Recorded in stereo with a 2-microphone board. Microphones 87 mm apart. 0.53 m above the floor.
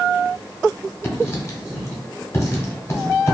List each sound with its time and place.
1.0 s writing: 35° left (ahead or behind), 0.8 m